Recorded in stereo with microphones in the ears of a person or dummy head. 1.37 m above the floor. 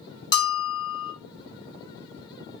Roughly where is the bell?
Left.